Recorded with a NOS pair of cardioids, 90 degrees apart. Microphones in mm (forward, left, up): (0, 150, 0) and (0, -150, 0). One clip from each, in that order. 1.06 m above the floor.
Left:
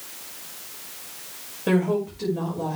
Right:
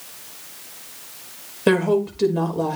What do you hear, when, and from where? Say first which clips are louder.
1.7 s a woman speaking: right 5 dB; 65° right, 5.5 m